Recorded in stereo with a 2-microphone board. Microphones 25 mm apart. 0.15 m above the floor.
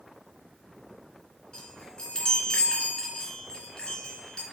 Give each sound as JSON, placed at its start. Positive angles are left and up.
{"t": 1.5, "sound": "a chime", "side_deg": 40, "distance_m": 2.0}